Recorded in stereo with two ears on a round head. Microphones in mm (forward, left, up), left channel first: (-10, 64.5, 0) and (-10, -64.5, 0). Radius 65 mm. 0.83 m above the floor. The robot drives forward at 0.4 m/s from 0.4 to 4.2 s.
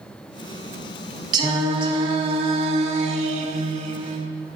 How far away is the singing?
About 1.3 m.